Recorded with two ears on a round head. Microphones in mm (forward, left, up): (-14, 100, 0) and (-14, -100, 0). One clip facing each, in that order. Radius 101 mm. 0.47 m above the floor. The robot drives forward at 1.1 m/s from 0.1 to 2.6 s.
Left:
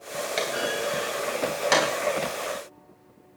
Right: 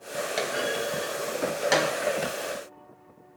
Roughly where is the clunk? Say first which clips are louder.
Left 1 dB; centre.